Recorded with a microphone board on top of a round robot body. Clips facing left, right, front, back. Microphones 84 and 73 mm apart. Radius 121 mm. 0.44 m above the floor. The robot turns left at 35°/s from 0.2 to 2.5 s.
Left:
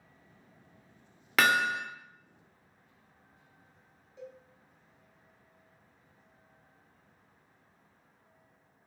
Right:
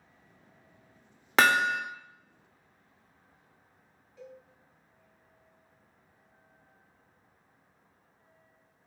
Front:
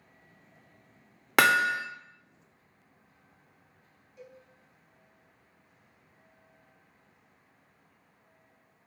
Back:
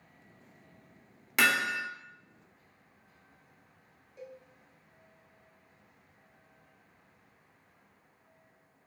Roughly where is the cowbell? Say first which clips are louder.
Left 1 dB, back 3 dB; behind left.